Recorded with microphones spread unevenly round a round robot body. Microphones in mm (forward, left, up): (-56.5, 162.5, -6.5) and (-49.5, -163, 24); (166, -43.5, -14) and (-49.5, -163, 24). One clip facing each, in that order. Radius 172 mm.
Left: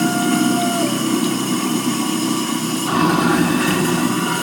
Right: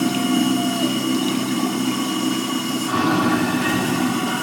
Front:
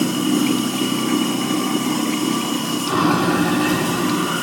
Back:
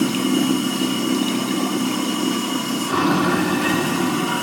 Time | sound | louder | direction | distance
0.0 | running water | left 2 dB, front 1 dB | 110° left | 7 m